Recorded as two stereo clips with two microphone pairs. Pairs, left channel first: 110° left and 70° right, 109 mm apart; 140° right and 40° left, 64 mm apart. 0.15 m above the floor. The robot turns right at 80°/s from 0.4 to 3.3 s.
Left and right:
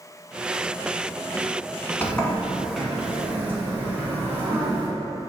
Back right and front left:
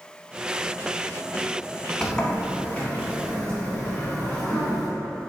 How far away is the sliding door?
About 0.8 m.